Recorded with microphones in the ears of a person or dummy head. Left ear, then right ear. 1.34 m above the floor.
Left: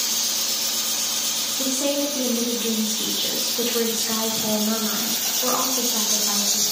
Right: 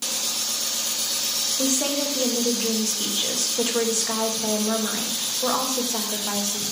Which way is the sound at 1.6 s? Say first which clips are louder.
Left 3 dB; 30° right (ahead or behind).